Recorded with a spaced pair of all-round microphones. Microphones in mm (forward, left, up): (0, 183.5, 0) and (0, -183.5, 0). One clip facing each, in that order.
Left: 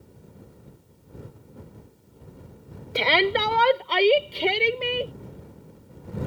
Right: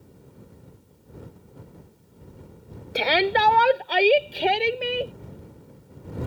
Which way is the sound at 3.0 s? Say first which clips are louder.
Even; 5° left (ahead or behind).